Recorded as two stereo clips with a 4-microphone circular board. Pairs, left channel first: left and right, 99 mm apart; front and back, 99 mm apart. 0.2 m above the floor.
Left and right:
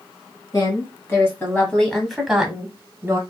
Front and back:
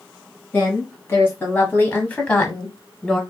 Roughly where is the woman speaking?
Ahead left.